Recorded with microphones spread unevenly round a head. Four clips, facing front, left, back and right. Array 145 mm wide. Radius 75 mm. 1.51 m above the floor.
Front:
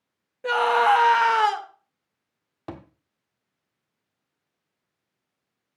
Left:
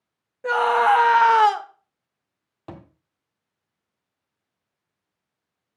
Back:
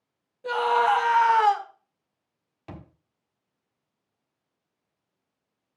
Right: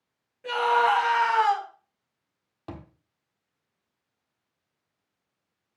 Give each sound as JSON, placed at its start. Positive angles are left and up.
{"t": 0.4, "sound": "a scream", "azimuth_deg": 45, "distance_m": 2.0}
{"t": 2.7, "sound": "a thud", "azimuth_deg": 15, "distance_m": 1.3}